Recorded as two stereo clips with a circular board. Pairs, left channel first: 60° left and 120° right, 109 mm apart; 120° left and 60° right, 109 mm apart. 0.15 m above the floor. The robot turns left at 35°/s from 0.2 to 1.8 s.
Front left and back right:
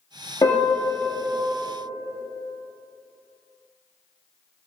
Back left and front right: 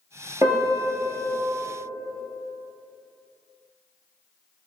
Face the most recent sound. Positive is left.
turn(degrees=-45)